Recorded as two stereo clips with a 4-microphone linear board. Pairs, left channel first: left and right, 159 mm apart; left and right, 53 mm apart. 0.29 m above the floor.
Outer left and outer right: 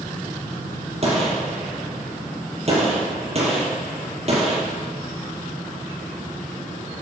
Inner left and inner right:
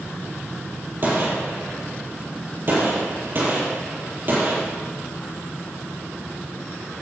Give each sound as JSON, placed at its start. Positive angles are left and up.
{"t": 1.0, "sound": "a gunshot", "side_deg": -45, "distance_m": 6.0}